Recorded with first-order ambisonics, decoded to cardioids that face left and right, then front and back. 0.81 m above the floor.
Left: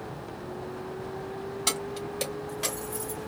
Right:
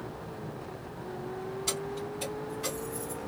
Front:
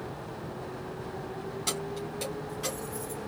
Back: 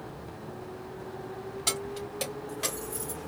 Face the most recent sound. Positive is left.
turn(degrees=145)